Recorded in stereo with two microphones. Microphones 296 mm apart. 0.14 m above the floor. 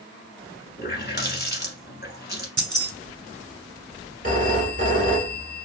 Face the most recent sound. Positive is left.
turn(degrees=-30)  # may be behind; listen again after turning